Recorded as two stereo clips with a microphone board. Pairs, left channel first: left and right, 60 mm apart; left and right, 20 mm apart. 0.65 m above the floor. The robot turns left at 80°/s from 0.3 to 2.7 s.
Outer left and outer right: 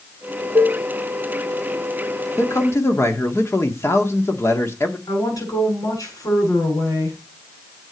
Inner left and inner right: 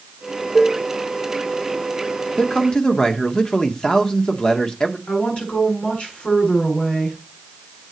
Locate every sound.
0.6 s dishes clattering: 55° right (ahead or behind), 0.7 m; by 0.8 s 45° right (ahead or behind), 0.7 m
2.4 s a man speaking: 55° left (ahead or behind), 1.5 m; by 5.0 s 45° left (ahead or behind), 1.5 m
5.1 s a woman speaking: 85° left, 6.5 m